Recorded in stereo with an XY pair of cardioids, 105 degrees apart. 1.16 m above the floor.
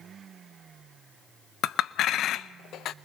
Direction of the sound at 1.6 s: 70° left.